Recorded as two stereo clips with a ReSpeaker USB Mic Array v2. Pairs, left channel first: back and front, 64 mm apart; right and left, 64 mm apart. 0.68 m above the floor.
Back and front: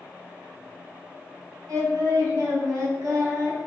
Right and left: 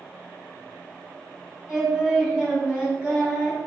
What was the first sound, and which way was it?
Singing, 20° left.